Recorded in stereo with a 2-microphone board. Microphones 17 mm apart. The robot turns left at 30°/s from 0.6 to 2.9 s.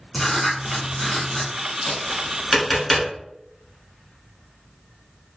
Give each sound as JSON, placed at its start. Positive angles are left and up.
{"t": 0.1, "sound": "writing", "side_deg": 35, "distance_m": 1.0}
{"t": 1.9, "sound": "tapping", "side_deg": 25, "distance_m": 1.5}